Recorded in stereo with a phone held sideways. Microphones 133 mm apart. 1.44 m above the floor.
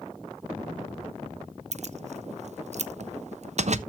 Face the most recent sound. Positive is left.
turn(degrees=-55)  # may be behind; listen again after turning